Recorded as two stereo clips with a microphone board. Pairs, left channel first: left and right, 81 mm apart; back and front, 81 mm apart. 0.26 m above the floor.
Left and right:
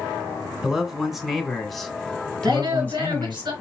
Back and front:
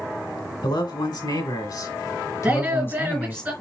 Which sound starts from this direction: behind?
A man speaking, at 0.6 s.